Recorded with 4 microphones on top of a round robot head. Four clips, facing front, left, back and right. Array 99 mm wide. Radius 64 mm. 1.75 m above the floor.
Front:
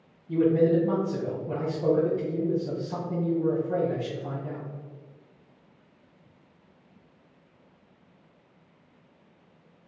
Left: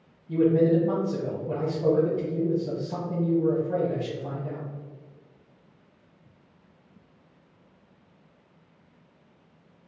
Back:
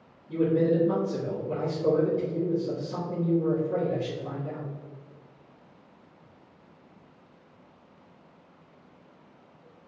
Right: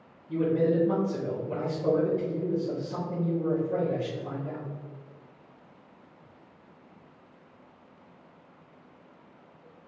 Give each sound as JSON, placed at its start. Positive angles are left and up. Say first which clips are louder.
{"t": 0.3, "sound": "a man speaking", "louder": "left 4 dB, front 2 dB", "azimuth_deg": 45, "distance_m": 1.4}